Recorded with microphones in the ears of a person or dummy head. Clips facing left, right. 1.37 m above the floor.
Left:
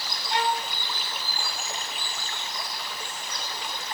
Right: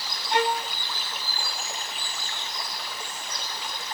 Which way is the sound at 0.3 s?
50° right (ahead or behind).